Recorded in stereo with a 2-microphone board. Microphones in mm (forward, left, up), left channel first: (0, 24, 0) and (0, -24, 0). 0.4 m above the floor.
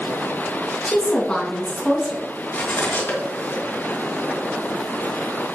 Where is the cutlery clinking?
45° left (ahead or behind), 2.5 m.